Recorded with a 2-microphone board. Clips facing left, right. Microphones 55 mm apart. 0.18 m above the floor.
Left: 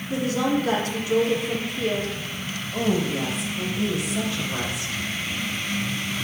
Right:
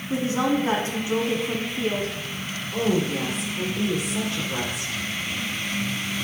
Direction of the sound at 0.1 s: 30° right (ahead or behind).